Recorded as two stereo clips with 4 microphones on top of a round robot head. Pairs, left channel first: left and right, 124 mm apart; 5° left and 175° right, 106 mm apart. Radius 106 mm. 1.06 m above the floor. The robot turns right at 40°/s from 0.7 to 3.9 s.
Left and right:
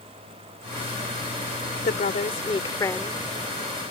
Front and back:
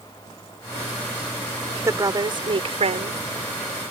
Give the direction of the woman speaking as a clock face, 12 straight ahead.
8 o'clock.